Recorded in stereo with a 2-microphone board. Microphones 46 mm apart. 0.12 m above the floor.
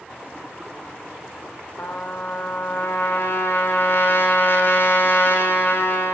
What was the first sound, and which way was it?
A trumpet, 60° left (ahead or behind).